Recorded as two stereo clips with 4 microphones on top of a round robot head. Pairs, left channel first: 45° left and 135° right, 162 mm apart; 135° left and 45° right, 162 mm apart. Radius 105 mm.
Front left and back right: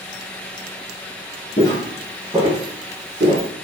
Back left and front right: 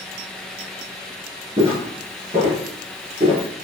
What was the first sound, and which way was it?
Footsteps, straight ahead.